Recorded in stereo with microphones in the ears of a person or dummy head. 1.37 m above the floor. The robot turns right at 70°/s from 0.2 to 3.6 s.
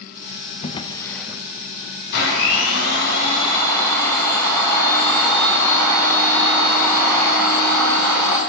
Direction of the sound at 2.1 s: 60° left.